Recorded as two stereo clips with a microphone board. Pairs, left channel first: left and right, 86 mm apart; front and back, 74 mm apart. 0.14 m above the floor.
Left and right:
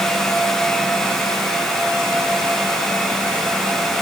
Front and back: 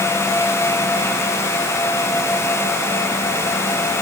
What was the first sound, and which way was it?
Only background noise.